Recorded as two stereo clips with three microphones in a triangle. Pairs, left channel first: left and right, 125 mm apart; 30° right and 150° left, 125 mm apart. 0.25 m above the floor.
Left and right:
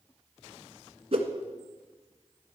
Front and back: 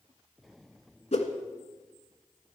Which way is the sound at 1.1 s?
55° right.